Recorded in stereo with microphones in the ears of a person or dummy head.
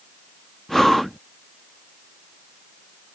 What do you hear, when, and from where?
0.7 s breathing: centre (ahead or behind)